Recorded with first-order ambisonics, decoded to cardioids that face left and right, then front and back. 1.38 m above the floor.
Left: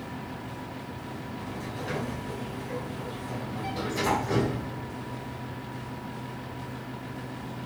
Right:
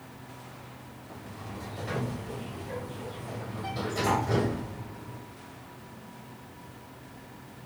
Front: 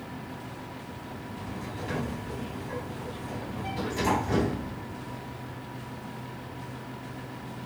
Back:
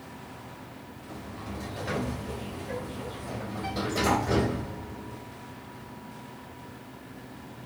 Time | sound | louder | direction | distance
1.1 | a sliding door | left 2 dB, back 2 dB | 170° left | 6 m